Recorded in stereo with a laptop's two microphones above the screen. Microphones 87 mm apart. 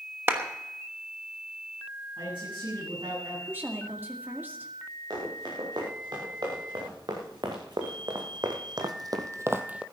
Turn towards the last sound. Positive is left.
turn(degrees=-15)  # may be behind; listen again after turning